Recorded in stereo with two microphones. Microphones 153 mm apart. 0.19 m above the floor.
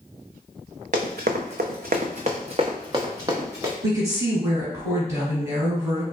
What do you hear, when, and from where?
0.9 s running footsteps: 65° right (ahead or behind), 0.8 m; by 3.7 s 15° right (ahead or behind), 1.4 m
3.8 s a woman speaking: 20° right (ahead or behind), 1.7 m